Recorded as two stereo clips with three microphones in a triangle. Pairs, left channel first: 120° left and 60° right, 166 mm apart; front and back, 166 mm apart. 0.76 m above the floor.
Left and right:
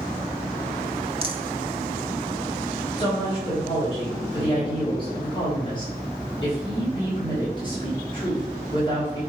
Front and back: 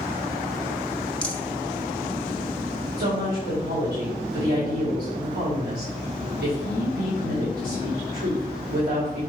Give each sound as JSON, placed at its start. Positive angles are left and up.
{"t": 1.2, "sound": "a rattle", "azimuth_deg": -80, "distance_m": 1.0}
{"t": 3.0, "sound": "a woman speaking", "azimuth_deg": 180, "distance_m": 3.5}